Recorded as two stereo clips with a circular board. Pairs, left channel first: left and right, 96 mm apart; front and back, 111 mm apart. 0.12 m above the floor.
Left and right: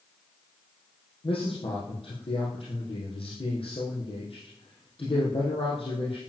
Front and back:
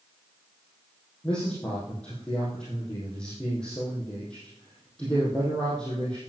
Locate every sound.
1.2 s a man speaking: 80° left, 5 m